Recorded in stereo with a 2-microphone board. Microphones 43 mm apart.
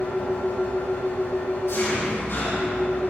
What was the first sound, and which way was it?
An engine running, 75° left (ahead or behind).